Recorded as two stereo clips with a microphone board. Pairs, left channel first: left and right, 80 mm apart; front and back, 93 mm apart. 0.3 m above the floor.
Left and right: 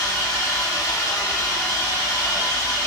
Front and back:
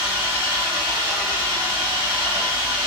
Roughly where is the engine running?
Behind left.